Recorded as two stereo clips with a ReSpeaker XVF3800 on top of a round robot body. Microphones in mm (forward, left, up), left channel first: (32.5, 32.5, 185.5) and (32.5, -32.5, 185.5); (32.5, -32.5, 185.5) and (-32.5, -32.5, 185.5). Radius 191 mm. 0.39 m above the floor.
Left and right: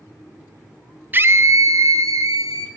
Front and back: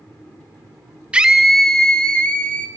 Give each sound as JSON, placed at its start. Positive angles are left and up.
{"t": 1.1, "sound": "a scream", "azimuth_deg": -120, "distance_m": 1.1}